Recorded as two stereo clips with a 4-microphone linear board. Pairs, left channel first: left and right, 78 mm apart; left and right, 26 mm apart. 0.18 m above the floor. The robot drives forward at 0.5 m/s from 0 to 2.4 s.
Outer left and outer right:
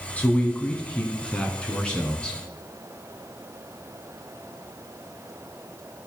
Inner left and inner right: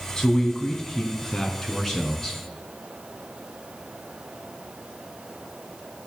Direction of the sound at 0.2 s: 20° left (ahead or behind).